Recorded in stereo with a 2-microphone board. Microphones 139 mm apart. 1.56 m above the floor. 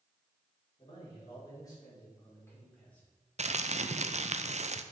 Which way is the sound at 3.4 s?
55° right (ahead or behind).